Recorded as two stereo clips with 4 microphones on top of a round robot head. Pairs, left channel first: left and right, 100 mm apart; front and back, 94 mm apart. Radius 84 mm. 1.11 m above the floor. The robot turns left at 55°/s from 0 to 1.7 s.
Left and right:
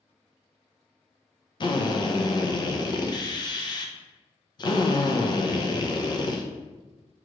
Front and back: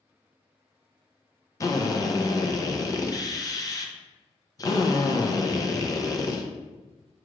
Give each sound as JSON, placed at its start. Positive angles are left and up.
{"t": 1.6, "sound": "a drill", "azimuth_deg": 55, "distance_m": 0.7}